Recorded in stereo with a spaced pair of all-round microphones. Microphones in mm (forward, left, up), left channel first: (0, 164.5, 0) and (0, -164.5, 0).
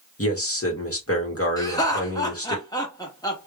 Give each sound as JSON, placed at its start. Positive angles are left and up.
{"t": 0.2, "sound": "a man speaking", "side_deg": 45, "distance_m": 1.9}
{"t": 1.6, "sound": "laughter", "side_deg": 10, "distance_m": 1.8}